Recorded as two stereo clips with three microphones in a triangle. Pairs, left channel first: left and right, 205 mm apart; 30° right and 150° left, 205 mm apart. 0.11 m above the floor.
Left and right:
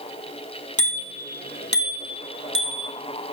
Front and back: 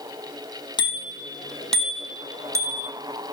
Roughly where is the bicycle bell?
Ahead left.